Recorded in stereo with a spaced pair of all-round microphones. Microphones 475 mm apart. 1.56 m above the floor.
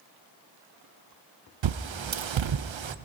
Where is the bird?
70° right (ahead or behind), 0.5 m.